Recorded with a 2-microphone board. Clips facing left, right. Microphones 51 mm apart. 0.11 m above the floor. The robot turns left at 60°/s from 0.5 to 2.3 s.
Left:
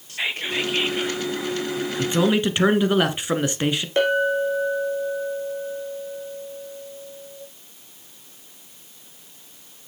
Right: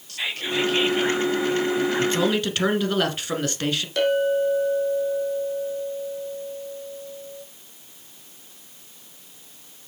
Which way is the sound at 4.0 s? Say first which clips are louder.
Even; 25° left (ahead or behind).